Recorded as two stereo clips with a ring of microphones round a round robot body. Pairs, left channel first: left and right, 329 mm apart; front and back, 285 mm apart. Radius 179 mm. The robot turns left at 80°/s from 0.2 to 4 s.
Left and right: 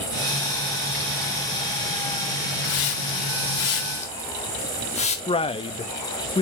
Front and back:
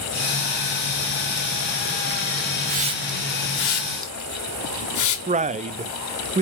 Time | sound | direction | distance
2.6 | a hiss | 130° left | 1.5 m
5.3 | a man speaking | 145° left | 0.5 m